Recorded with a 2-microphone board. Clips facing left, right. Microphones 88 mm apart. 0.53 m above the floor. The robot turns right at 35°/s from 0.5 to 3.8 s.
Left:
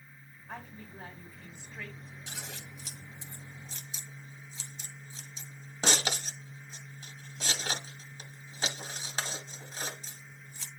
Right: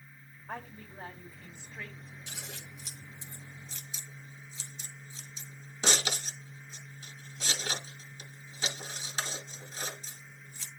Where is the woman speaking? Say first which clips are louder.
Right 2 dB; 55° right, 2.5 m; by 2.2 s 5° left, 2.5 m.